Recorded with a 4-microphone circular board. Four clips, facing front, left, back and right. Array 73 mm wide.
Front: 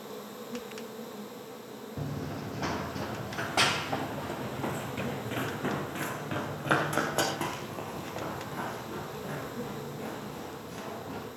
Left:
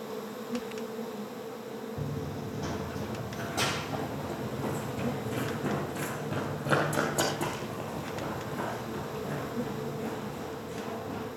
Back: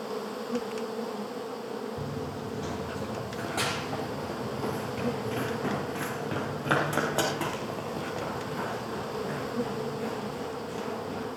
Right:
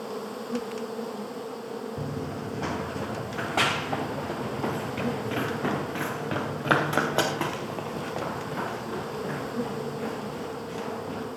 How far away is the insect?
About 1.8 m.